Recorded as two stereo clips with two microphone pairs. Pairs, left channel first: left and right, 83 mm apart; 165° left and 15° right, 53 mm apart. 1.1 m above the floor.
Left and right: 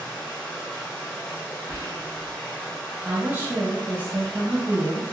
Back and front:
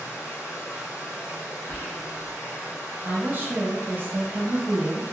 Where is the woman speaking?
35° right, 0.9 m.